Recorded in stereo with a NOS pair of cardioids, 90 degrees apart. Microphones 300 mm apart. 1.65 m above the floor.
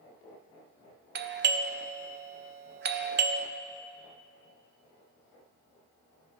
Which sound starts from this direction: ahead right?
A doorbell, at 1.1 s.